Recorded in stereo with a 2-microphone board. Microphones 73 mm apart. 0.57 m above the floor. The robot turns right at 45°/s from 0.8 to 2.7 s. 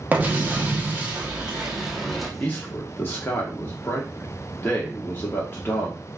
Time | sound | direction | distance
0.1 | an explosion | 20° right (ahead or behind) | 1.0 m
2.4 | a man speaking | 20° left (ahead or behind) | 0.9 m